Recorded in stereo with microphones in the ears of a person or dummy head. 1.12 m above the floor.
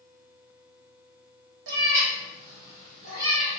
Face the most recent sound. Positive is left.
turn(degrees=-60)  # may be behind; listen again after turning